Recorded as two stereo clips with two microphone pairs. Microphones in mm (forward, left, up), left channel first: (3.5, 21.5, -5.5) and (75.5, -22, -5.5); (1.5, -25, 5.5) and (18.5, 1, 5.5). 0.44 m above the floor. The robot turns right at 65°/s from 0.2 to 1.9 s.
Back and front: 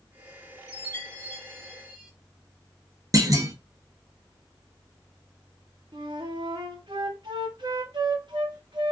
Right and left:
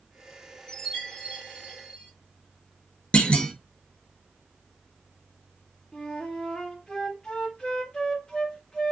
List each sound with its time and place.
0.7 s a chime: 175° left, 1.7 m; by 2.1 s 105° right, 1.7 m
3.1 s a clunk: 70° right, 0.6 m
5.9 s a flute: 55° right, 0.8 m